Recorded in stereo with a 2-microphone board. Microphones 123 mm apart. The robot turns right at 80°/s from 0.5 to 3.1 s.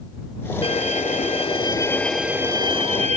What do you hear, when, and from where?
0.6 s a violin: 55° left; by 3.2 s 105° right